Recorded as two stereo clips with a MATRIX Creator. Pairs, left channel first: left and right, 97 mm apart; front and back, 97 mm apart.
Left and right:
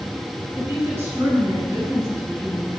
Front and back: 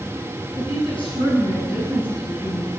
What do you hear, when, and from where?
0.6 s a woman speaking: 25° right, 6.5 m